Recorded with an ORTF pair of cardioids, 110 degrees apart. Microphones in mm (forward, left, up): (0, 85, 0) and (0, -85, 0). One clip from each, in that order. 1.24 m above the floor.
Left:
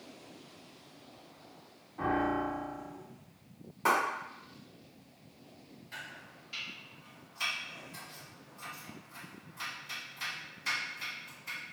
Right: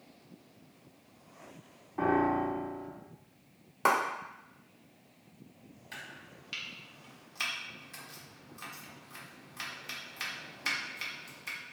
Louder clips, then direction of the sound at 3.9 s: Right 1 dB; 45° right.